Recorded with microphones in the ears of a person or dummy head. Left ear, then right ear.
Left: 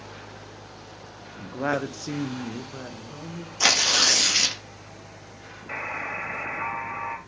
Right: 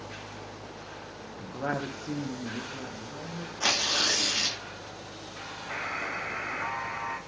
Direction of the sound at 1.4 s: 40° left (ahead or behind).